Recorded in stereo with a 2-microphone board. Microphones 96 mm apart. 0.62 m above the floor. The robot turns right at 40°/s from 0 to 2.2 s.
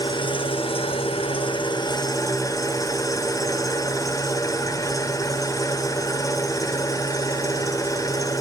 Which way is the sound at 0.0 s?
55° left.